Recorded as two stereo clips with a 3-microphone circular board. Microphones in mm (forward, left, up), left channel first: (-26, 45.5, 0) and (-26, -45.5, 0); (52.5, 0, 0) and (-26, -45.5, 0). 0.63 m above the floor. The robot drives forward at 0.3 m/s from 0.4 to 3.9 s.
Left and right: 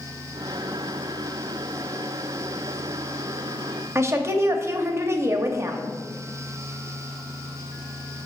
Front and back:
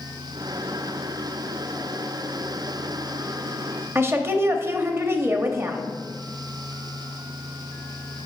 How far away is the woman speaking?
About 0.7 m.